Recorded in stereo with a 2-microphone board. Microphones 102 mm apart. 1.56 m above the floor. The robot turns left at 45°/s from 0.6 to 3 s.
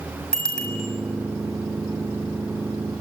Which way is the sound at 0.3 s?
5° left (ahead or behind).